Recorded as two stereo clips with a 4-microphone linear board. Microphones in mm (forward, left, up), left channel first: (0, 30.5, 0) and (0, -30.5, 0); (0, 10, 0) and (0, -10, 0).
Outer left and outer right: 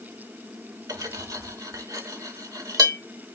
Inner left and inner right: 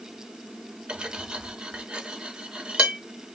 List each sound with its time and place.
0.9 s cutlery clinking: 60° right (ahead or behind), 0.8 m